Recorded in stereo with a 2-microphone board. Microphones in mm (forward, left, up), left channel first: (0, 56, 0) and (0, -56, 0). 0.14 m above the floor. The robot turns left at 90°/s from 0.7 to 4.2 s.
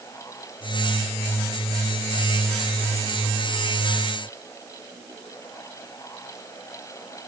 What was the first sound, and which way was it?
Only background noise.